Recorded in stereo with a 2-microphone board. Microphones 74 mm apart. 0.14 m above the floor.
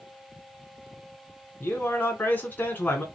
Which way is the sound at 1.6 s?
25° left (ahead or behind).